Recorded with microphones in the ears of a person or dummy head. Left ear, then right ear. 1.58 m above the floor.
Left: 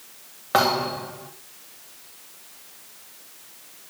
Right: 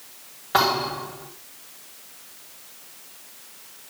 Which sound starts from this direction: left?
A thud, at 0.5 s.